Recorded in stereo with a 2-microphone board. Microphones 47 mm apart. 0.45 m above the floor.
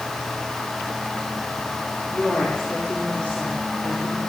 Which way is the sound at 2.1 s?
30° left (ahead or behind).